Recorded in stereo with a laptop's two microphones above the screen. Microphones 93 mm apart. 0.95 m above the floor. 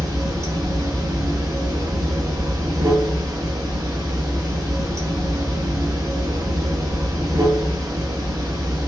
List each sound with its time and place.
0.0 s running water: 35° right (ahead or behind), 1.6 m